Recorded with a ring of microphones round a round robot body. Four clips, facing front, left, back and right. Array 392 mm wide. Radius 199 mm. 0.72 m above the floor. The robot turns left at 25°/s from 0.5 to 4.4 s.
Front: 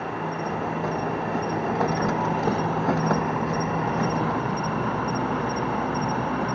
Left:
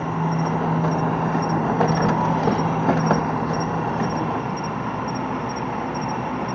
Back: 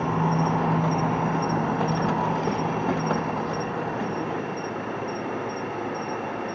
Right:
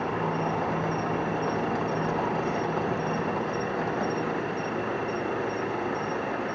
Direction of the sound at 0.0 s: 135° left.